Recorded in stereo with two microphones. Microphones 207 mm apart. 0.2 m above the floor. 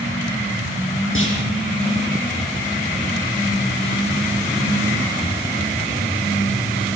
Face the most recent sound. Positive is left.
turn(degrees=75)  # may be behind; listen again after turning